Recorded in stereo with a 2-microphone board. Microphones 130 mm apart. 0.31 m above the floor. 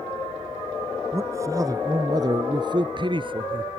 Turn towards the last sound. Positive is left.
turn(degrees=-40)  # may be behind; listen again after turning